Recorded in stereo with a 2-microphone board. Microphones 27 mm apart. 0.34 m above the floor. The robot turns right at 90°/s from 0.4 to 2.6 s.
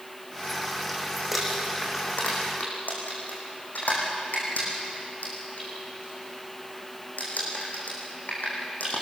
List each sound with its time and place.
1.3 s crumpling: 10° right (ahead or behind), 6 m; by 9.0 s 75° left (ahead or behind), 6 m